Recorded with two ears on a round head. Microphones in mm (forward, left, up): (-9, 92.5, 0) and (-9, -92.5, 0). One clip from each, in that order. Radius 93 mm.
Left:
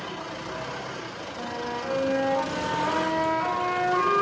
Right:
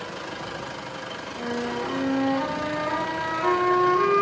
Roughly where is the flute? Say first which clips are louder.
Right 3 dB; left.